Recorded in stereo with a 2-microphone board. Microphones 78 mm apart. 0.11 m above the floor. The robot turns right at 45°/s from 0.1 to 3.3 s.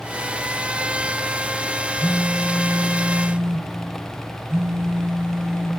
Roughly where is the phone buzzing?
Behind.